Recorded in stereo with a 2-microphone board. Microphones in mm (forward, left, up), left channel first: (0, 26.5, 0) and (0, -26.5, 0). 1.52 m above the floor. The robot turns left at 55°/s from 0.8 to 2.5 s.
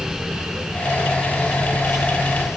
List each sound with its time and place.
Only background noise.